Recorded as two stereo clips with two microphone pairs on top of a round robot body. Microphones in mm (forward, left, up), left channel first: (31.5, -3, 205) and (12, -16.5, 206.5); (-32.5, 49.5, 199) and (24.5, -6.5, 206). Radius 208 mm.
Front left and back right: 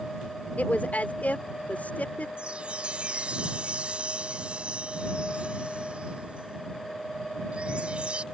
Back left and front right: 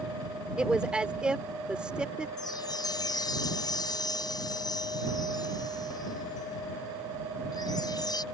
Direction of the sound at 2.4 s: 175° left.